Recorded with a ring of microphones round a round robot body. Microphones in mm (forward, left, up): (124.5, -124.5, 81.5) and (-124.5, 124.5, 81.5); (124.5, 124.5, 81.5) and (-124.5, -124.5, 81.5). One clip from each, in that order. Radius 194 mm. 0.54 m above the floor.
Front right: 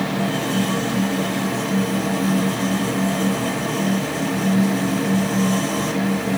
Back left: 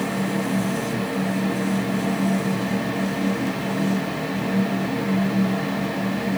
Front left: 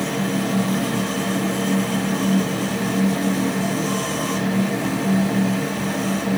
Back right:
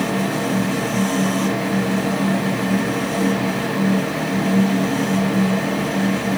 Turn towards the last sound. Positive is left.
No sound to turn to.